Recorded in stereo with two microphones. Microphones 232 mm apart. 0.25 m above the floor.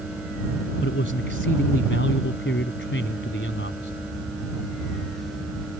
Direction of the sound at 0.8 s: 60° left (ahead or behind).